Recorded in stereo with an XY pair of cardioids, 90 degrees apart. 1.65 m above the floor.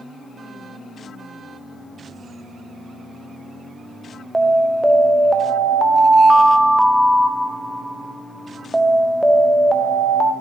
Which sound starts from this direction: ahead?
An alarm, at 4.3 s.